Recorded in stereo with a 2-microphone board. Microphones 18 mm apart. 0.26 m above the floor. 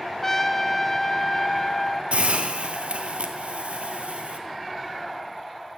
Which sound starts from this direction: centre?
A trumpet, at 0.2 s.